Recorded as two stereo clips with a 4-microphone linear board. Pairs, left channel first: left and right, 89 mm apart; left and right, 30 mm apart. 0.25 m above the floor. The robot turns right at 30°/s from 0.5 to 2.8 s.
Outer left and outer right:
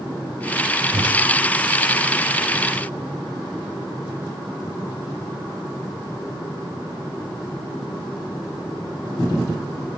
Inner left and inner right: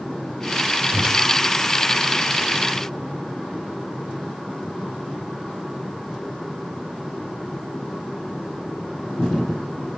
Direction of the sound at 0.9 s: 70° right (ahead or behind).